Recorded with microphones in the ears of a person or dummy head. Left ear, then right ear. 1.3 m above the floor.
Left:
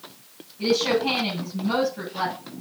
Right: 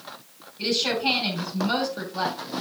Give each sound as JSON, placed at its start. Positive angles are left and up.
{"t": 0.6, "sound": "a woman speaking", "side_deg": -70, "distance_m": 6.5}